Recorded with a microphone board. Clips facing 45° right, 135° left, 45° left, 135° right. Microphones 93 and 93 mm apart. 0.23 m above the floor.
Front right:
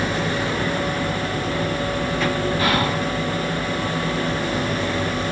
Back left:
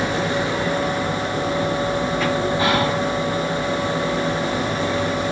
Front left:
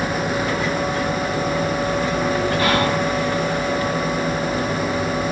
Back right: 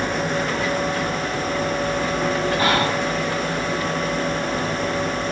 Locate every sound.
2.6 s whispering: straight behind, 1.3 m